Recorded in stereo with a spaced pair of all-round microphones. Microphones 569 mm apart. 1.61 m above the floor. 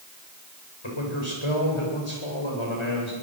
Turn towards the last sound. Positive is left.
turn(degrees=55)  # may be behind; listen again after turning